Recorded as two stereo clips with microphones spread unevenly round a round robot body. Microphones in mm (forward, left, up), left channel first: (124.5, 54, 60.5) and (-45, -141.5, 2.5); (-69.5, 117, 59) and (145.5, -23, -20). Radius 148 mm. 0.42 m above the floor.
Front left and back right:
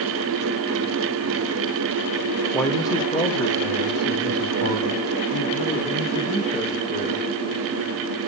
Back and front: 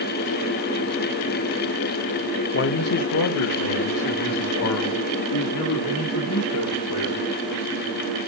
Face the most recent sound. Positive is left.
turn(degrees=115)